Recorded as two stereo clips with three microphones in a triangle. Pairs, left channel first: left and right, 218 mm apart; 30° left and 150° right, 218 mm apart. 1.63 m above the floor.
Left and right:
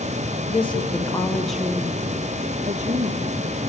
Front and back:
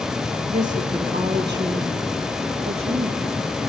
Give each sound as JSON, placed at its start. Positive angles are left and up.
{"t": 0.5, "sound": "a woman speaking", "azimuth_deg": 155, "distance_m": 1.9}